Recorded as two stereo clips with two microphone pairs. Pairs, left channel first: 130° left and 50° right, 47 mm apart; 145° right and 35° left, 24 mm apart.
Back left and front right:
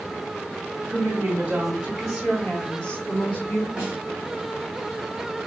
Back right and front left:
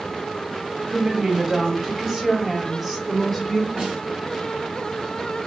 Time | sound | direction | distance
0.9 | a woman speaking | 5° right | 1.7 m
3.8 | a snare drum | 20° left | 2 m